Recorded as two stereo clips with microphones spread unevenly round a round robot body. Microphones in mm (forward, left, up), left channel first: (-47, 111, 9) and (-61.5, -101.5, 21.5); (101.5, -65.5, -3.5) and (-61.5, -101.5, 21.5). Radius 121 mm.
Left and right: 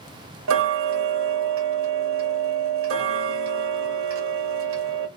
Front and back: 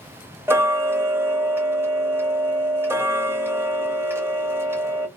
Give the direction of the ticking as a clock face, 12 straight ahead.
3 o'clock.